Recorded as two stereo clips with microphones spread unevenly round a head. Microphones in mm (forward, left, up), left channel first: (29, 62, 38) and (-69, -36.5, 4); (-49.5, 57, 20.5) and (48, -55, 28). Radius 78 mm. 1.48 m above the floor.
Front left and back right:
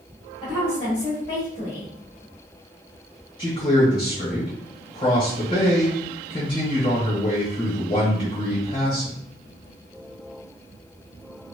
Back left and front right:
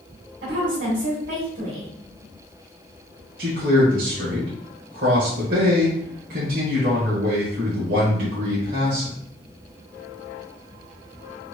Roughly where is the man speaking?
Ahead.